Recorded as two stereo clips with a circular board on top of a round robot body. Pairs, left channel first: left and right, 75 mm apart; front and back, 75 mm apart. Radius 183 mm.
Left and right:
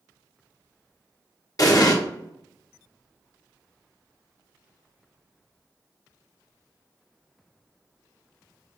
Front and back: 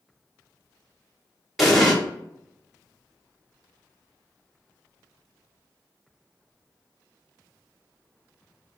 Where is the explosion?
95° left, 1.4 m.